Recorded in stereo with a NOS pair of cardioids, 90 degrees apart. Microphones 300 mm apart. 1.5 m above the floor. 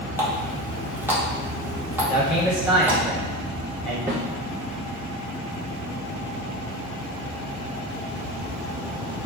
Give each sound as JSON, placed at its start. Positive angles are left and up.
{"t": 0.2, "sound": "a running tap", "azimuth_deg": -5, "distance_m": 1.7}
{"t": 2.1, "sound": "a man speaking", "azimuth_deg": -15, "distance_m": 2.0}
{"t": 4.1, "sound": "a snare drum", "azimuth_deg": -10, "distance_m": 1.9}